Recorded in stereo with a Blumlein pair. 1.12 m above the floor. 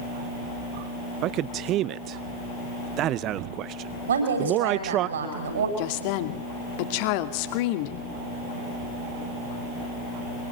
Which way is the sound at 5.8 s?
45° left.